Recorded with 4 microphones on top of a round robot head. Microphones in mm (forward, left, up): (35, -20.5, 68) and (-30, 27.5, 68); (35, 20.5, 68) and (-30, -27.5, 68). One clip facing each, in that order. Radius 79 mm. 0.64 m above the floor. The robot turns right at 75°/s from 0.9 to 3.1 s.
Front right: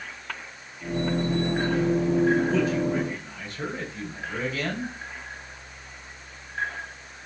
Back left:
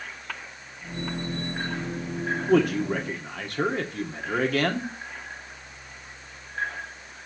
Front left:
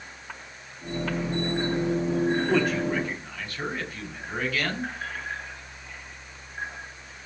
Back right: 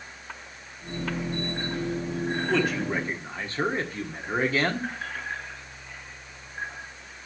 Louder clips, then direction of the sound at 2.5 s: Back left 2 dB, front left 2 dB; 115° left.